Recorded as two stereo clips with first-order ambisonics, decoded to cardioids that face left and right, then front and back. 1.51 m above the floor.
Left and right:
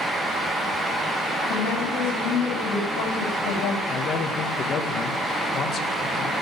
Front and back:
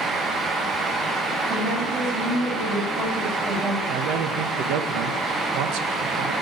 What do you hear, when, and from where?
1.5 s a woman speaking: 115° left, 8.5 m
3.9 s a man speaking: 150° left, 1.5 m